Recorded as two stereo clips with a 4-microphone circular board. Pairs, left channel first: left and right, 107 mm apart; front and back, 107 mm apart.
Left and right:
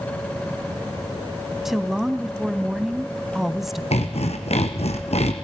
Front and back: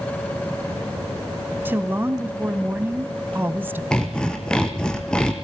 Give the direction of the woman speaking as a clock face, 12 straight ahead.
6 o'clock.